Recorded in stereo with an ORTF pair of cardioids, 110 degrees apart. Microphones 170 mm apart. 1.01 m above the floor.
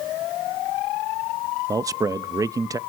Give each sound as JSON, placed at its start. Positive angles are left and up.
{"t": 1.7, "sound": "a man speaking", "azimuth_deg": -20, "distance_m": 0.7}